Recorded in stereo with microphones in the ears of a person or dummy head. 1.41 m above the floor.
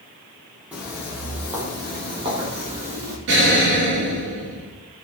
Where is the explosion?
65° right (ahead or behind), 5.5 m.